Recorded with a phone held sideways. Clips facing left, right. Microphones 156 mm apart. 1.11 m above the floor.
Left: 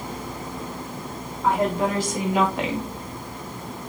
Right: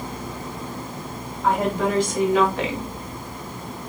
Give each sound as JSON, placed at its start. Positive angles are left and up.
{"t": 1.4, "sound": "a woman speaking", "side_deg": 5, "distance_m": 2.5}